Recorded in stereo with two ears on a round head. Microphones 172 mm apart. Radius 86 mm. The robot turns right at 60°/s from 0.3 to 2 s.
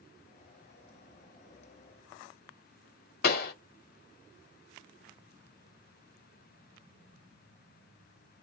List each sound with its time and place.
3.2 s a pop: 50° left (ahead or behind), 0.9 m